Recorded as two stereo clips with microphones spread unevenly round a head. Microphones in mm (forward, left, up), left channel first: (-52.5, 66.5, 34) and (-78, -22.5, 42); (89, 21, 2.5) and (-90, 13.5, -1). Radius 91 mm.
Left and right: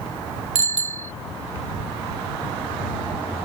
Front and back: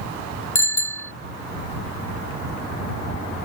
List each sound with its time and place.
0.6 s a bicycle bell: 75° right